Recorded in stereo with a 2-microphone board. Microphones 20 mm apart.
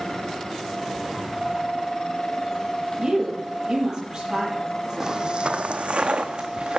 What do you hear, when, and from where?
3.0 s a woman speaking: 30° right (ahead or behind), 6.5 m
5.0 s footsteps: 30° right (ahead or behind), 0.6 m; by 6.8 s 60° right (ahead or behind), 1.4 m